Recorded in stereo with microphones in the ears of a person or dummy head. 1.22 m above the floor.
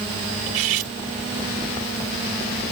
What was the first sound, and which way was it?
Cutlery clinking, 75° right (ahead or behind).